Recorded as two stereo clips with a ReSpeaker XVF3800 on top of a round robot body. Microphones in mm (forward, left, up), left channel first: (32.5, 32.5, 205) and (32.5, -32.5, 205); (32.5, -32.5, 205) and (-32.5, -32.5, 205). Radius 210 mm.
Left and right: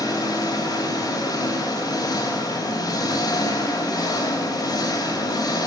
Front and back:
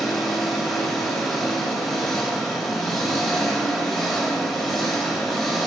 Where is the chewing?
No chewing in this recording.